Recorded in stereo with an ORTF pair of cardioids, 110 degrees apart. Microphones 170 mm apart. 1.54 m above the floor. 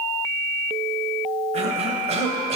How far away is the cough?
About 1.2 m.